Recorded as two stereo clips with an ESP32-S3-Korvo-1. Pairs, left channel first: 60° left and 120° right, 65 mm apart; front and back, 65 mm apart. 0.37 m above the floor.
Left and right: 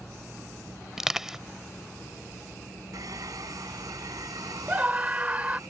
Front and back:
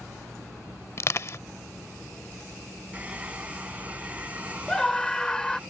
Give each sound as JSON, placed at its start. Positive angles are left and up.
{"t": 1.0, "sound": "crushing", "azimuth_deg": -40}
{"t": 2.9, "sound": "a hair dryer", "azimuth_deg": -115}
{"t": 4.7, "sound": "a scream", "azimuth_deg": -70}